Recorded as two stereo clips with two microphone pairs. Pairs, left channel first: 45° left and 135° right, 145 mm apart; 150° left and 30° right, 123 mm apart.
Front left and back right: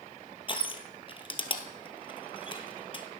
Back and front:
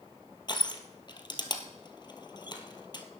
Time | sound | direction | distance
0.5 | crushing | 95° left | 1.4 m